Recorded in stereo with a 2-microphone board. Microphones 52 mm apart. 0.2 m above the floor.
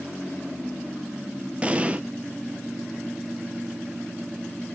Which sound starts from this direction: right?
An explosion, at 1.6 s.